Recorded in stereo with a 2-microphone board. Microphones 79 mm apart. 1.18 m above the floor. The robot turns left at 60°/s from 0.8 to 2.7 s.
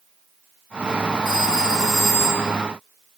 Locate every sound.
1.2 s a phone ringing: 85° right, 5.5 m; by 2.5 s 160° right, 5.5 m